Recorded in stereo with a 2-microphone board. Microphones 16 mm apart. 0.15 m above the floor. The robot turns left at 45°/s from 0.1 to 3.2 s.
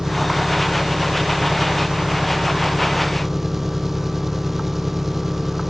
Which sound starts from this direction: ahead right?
An engine running, at 0.0 s.